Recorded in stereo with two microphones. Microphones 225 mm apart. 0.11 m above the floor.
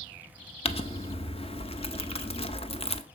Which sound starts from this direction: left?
Crumpling, at 0.7 s.